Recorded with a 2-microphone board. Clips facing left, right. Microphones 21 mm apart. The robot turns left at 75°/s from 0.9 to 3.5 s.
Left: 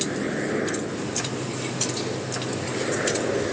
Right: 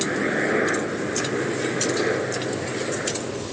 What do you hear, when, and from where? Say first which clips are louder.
0.0 s a helicopter: right 4 dB; 25° right; by 3.5 s 140° left